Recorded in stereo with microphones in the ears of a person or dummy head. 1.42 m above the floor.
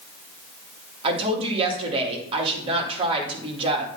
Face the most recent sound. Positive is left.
turn(degrees=-30)  # may be behind; listen again after turning